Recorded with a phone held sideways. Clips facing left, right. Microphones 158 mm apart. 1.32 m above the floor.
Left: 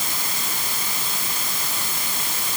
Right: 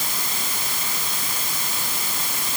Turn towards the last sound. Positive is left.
No sound to turn to.